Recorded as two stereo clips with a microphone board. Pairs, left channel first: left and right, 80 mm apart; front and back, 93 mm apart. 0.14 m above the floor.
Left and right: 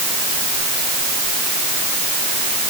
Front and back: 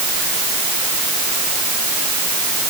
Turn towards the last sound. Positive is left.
No sound to turn to.